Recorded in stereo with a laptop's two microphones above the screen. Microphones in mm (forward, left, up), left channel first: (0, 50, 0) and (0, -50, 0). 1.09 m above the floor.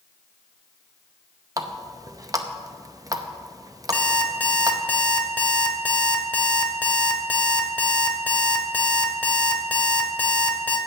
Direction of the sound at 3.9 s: 15° left (ahead or behind).